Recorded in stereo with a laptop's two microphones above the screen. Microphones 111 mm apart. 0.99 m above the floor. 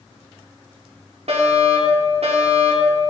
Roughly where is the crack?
No crack in this recording.